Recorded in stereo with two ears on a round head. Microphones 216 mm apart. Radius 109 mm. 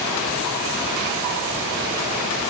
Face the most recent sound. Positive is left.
No sound to turn to.